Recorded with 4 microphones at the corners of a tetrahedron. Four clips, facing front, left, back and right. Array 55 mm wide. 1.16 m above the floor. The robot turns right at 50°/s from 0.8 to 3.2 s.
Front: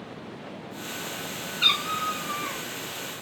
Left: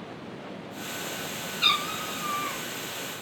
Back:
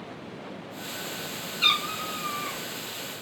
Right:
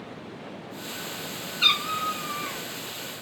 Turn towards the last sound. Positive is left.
turn(degrees=35)